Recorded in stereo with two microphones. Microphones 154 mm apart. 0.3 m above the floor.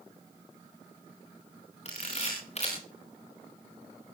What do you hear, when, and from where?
1.9 s a camera shutter: 45° left (ahead or behind), 7 m